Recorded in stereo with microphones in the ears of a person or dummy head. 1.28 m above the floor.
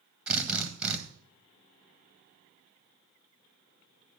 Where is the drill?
5° right (ahead or behind), 1.4 m.